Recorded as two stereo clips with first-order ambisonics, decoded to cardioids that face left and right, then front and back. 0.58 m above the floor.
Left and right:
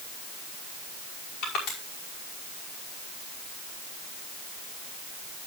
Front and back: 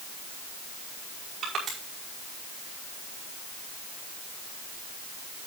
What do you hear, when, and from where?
1.4 s crushing: 120° left, 5.5 m